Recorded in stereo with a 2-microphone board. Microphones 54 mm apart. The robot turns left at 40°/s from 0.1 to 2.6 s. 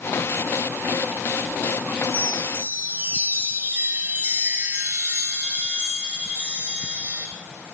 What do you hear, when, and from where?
2.0 s a chime: 55° right (ahead or behind), 2.5 m; by 7.3 s 35° right (ahead or behind), 2.5 m